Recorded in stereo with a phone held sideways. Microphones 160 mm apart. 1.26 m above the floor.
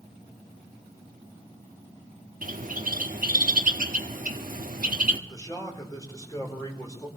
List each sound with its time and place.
2.4 s a bird: 60° right (ahead or behind), 1.1 m
5.3 s a man speaking: 20° left (ahead or behind), 4.5 m